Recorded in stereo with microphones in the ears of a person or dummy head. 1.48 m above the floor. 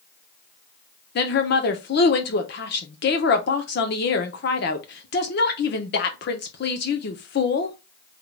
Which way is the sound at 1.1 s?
55° left (ahead or behind).